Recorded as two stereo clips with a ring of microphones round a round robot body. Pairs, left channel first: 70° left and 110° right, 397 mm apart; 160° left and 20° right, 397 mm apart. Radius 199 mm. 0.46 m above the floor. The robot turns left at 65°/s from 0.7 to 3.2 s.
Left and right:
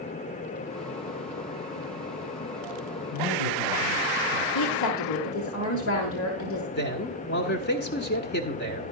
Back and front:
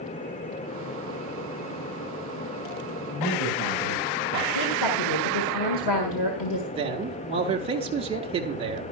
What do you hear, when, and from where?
3.1 s a man speaking: 100° left, 5 m; by 4.5 s 95° left, 5 m
4.5 s a woman speaking: 120° left, 1.7 m
6.7 s a man speaking: 35° left, 1.4 m